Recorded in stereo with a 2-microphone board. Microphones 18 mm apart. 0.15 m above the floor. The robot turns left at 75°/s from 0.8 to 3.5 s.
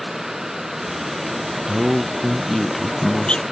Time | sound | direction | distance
1.7 | a man speaking | 130° right | ?